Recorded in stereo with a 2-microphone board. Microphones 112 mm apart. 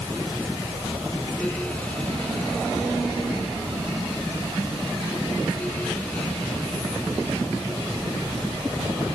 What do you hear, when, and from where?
Only background noise.